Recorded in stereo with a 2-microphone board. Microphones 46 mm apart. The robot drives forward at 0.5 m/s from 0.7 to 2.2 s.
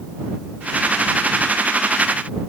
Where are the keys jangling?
No keys jangling in this recording.